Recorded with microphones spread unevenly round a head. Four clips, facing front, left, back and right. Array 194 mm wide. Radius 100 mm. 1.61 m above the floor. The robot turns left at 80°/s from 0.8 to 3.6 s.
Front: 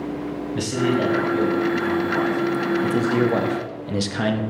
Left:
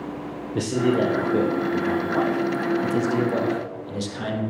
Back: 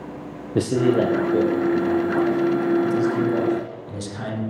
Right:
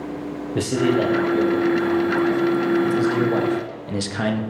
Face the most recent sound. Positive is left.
turn(degrees=-40)